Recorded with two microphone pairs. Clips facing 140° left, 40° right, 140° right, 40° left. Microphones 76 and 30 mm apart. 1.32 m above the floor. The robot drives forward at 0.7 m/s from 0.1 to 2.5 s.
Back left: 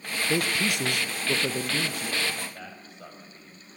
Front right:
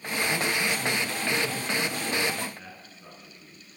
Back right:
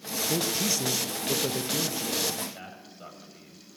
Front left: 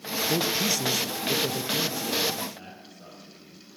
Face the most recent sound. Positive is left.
turn(degrees=160)